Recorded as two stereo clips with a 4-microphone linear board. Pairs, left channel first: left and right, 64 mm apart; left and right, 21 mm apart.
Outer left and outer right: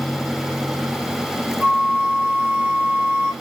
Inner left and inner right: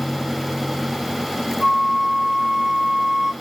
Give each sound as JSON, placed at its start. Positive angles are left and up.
{"t": 1.6, "sound": "a flute", "side_deg": -25, "distance_m": 2.5}